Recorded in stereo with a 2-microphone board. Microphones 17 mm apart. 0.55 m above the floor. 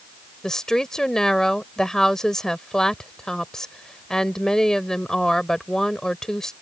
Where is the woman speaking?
35° left (ahead or behind).